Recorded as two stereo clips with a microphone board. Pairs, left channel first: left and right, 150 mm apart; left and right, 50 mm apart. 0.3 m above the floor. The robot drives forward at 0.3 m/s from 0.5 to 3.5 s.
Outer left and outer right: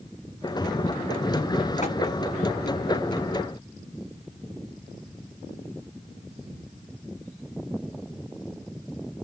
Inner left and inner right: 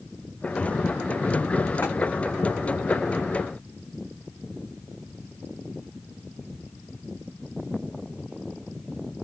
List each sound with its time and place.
1.8 s tapping: 45° left (ahead or behind), 1.9 m